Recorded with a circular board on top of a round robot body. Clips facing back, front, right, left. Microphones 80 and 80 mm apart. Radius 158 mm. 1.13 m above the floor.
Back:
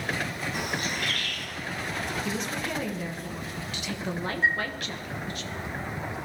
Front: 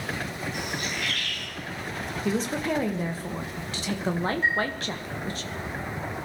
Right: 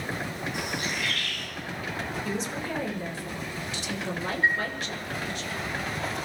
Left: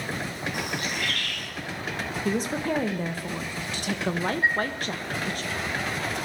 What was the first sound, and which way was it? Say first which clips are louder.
A bird: back 3 dB, left 1 dB; 130° left.